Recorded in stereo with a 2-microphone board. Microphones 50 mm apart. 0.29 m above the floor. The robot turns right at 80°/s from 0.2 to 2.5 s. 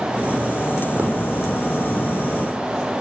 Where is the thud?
30° right (ahead or behind), 3.5 m; by 1.1 s 15° right (ahead or behind), 3.5 m.